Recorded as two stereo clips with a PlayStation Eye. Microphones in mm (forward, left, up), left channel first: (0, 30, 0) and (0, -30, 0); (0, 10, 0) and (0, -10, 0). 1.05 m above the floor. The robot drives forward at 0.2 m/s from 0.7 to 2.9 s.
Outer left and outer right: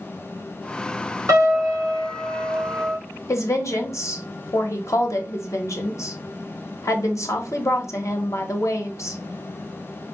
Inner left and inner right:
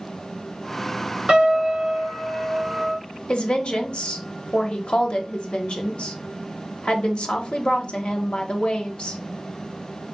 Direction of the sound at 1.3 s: 60° right (ahead or behind).